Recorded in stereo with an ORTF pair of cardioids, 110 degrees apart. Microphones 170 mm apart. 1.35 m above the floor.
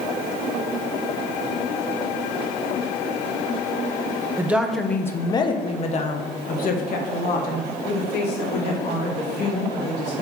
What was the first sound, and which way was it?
A woman speaking, 10° right.